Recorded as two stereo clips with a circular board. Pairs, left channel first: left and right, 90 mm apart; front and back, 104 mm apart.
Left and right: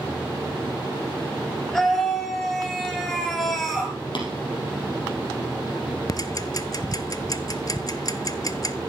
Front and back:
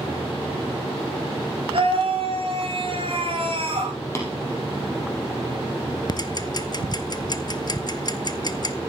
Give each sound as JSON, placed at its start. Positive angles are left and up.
{"t": 1.7, "sound": "a scream", "azimuth_deg": 180, "distance_m": 3.5}
{"t": 4.2, "sound": "tapping", "azimuth_deg": 65, "distance_m": 3.5}
{"t": 6.1, "sound": "ticking", "azimuth_deg": 45, "distance_m": 0.6}